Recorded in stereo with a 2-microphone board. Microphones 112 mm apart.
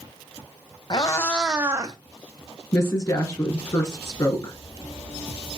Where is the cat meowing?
40° left (ahead or behind), 0.6 m; by 2.0 s 40° right (ahead or behind), 0.6 m.